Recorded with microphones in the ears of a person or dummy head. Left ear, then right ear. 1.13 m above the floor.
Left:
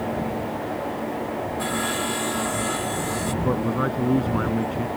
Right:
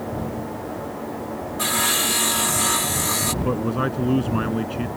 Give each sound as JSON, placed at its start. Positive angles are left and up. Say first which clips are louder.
{"t": 1.6, "sound": "sawing", "louder": "right 7 dB", "side_deg": -25}
{"t": 3.4, "sound": "a man speaking", "louder": "even", "side_deg": -10}